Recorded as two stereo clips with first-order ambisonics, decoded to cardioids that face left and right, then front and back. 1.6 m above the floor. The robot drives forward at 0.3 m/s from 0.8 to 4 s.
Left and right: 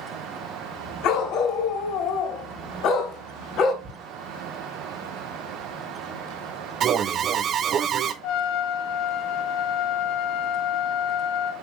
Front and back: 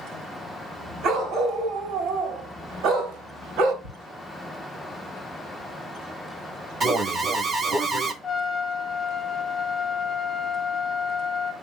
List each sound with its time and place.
1.0 s a dog barking: 125° left, 3 m; by 3.7 s 135° left, 3.5 m
3.8 s ticking: 150° right, 4 m
6.8 s an alarm: 115° right, 0.8 m
8.2 s a trumpet: 80° left, 1.8 m